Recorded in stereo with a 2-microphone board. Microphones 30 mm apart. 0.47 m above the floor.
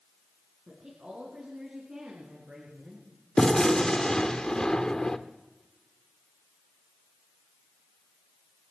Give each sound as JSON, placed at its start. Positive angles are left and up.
{"t": 0.7, "sound": "a woman speaking", "side_deg": -50, "distance_m": 5.0}
{"t": 3.4, "sound": "a gunshot", "side_deg": 25, "distance_m": 0.8}